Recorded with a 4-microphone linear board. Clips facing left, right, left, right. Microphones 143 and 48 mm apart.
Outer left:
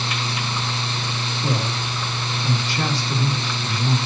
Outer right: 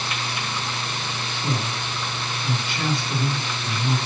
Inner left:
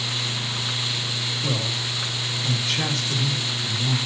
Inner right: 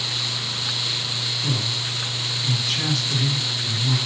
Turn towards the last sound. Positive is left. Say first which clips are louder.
# outer left 2 dB, even
turn(degrees=40)  # may be behind; listen again after turning